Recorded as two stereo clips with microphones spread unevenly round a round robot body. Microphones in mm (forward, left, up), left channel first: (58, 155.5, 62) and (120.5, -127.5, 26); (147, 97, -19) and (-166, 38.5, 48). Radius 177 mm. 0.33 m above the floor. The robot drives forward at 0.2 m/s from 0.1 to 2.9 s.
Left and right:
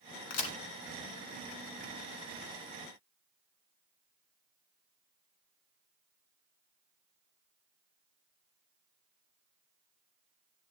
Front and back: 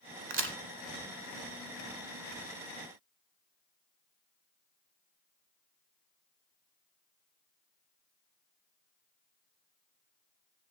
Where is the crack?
135° left, 1.7 m.